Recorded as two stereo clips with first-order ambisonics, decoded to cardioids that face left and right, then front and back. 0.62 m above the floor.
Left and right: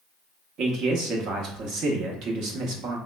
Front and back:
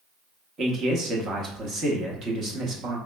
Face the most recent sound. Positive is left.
turn(degrees=-125)